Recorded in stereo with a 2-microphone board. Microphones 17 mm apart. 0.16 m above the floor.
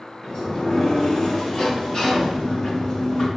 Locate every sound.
0.2 s a sliding door: 50° left (ahead or behind), 3.5 m